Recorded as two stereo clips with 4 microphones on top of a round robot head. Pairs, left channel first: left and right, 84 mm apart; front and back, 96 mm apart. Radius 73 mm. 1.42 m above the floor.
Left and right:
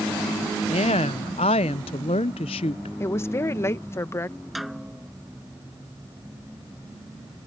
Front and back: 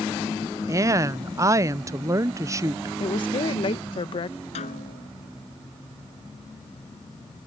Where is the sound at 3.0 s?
30° left.